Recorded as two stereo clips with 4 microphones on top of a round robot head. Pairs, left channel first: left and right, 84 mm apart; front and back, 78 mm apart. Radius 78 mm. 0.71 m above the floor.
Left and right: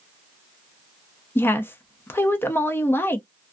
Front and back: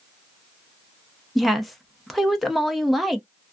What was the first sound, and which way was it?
A woman speaking, 90° left.